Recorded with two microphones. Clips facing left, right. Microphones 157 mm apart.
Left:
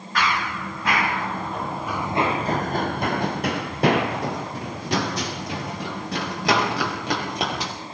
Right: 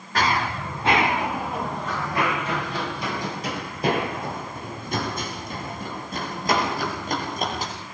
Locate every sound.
0.1 s running footsteps: 40° right (ahead or behind), 3 m; by 7.7 s 80° left, 7.5 m